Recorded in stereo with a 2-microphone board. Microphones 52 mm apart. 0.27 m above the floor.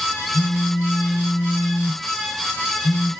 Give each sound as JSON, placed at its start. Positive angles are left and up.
{"t": 0.3, "sound": "a phone buzzing", "side_deg": 70, "distance_m": 1.2}